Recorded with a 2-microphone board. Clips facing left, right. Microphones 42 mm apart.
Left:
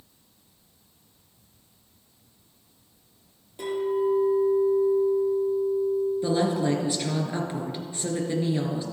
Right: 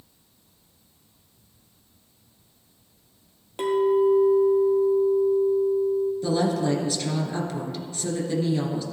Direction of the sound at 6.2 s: 25° left (ahead or behind).